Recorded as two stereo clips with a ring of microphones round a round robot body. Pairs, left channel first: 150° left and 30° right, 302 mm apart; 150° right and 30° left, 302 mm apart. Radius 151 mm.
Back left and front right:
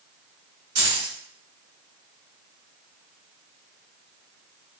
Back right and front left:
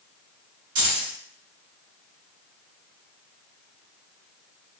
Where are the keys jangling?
10° left, 1.3 m.